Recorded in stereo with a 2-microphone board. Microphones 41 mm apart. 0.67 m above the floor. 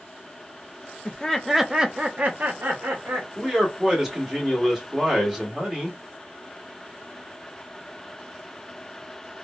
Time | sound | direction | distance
1.1 | laughter | 25° left (ahead or behind) | 0.5 m
3.4 | a man speaking | 10° right (ahead or behind) | 1.4 m